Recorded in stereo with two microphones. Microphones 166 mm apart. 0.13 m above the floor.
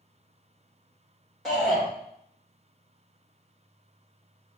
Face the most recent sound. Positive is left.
turn(degrees=5)  # may be behind; listen again after turning